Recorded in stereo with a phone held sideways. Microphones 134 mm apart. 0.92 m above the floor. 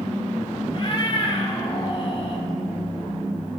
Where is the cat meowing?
45° left (ahead or behind), 1.7 m.